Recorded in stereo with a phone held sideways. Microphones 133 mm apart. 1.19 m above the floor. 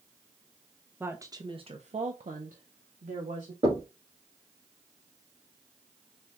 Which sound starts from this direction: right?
Knocking, at 3.6 s.